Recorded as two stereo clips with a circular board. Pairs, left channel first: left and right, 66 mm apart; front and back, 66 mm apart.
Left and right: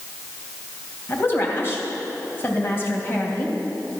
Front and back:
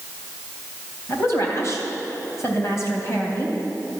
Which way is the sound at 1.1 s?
40° left.